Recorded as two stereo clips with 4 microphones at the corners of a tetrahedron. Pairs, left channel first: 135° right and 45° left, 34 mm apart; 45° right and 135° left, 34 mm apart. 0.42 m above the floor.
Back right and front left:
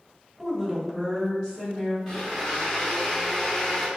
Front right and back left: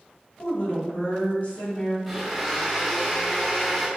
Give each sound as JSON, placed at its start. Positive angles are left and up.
{"t": 0.4, "sound": "a woman speaking", "azimuth_deg": -40, "distance_m": 1.8}
{"t": 2.1, "sound": "a blender", "azimuth_deg": -145, "distance_m": 1.1}